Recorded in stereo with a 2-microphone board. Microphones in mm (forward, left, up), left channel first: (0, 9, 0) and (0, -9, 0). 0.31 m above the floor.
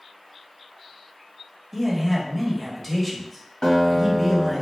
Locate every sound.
1.7 s a man speaking: 5° left (ahead or behind), 1.0 m
3.6 s a guitar: 50° left (ahead or behind), 1.3 m